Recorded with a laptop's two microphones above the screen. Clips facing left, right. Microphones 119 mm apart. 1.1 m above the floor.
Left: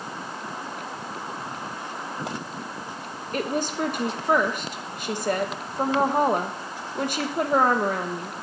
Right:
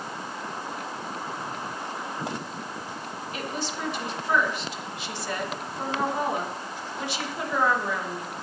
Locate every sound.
3.3 s a woman speaking: 50° left (ahead or behind), 1.1 m